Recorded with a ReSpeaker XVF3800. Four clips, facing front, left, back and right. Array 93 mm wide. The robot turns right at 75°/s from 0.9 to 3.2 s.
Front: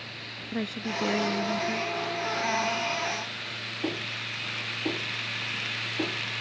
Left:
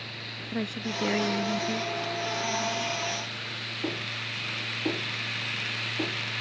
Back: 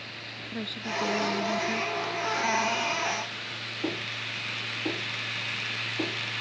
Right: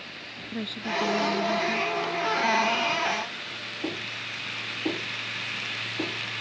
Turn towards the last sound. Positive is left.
turn(degrees=-140)